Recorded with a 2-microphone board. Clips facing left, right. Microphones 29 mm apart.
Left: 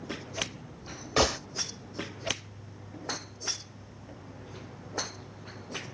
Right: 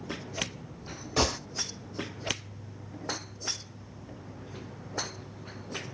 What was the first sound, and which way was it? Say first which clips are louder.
A gunshot: left 2 dB; 30° left (ahead or behind).